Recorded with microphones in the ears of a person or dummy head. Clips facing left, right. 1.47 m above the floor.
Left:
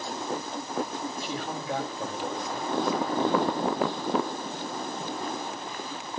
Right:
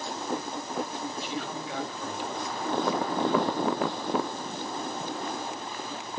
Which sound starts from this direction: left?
A man speaking, at 1.2 s.